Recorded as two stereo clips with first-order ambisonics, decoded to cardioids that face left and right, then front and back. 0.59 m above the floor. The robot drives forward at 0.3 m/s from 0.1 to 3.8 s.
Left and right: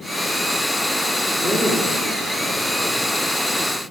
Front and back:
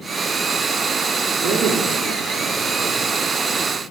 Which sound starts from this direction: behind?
A man speaking, at 1.4 s.